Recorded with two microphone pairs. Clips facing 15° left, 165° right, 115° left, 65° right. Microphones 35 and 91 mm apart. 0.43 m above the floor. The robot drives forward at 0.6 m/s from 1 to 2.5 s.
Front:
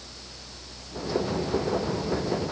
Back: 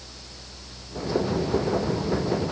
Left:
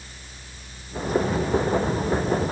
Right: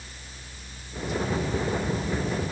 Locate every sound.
Only background noise.